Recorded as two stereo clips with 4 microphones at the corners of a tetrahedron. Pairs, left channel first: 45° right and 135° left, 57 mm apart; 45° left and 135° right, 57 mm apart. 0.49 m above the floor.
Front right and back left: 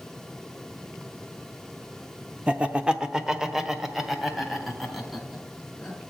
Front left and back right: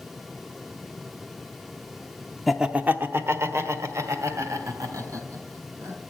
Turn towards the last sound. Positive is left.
turn(degrees=-135)